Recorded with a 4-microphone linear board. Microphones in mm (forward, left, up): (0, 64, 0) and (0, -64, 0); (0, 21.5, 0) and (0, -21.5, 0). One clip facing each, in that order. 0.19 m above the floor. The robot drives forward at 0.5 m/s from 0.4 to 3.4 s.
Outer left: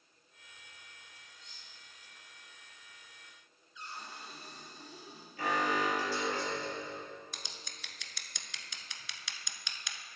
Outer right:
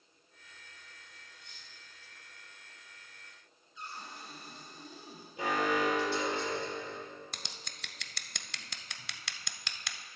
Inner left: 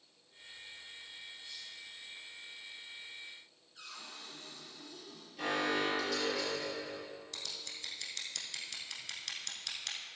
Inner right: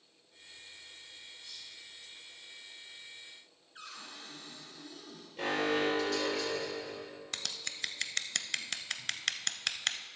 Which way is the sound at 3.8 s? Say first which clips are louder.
Outer right 1 dB, inner right 2 dB; 40° right (ahead or behind).